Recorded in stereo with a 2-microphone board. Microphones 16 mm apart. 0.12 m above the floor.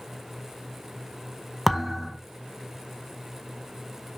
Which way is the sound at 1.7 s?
10° left (ahead or behind).